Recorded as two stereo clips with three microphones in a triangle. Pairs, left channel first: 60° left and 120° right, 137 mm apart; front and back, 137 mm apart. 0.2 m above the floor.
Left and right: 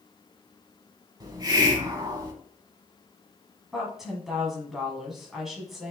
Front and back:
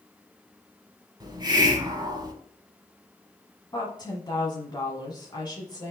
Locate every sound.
1.2 s a hiss: 155° right, 1.0 m
3.7 s a woman speaking: 35° right, 1.2 m